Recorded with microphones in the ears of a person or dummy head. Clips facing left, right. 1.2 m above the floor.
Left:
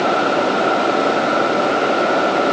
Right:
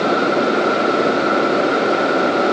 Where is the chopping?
I don't hear chopping.